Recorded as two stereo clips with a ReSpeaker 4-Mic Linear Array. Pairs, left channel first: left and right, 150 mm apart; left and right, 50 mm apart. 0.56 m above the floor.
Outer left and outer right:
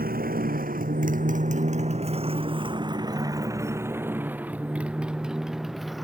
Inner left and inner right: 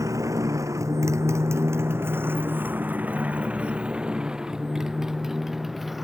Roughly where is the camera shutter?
I don't hear a camera shutter.